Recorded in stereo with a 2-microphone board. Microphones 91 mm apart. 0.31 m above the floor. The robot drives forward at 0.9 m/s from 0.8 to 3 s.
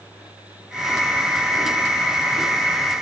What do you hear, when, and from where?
Only background noise.